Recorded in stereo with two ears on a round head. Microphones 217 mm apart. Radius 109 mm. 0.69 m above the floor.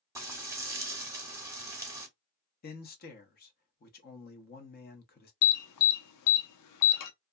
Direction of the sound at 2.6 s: 40° left (ahead or behind).